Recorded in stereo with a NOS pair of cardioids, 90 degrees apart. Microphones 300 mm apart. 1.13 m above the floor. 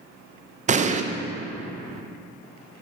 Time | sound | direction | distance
0.7 | an explosion | 25° right | 0.6 m